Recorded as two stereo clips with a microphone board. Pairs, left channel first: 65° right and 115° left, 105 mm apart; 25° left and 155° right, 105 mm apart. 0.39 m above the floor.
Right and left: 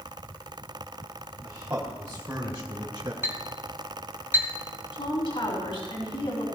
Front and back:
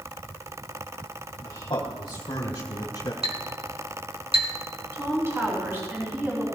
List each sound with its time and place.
1.4 s a man speaking: 60° left, 1.6 m
3.2 s a clink: straight behind, 2.5 m
4.9 s a woman speaking: 95° right, 4 m